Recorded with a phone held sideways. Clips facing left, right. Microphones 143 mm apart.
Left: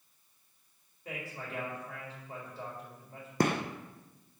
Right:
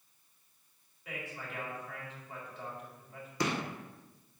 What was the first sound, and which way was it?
A man speaking, 35° left (ahead or behind).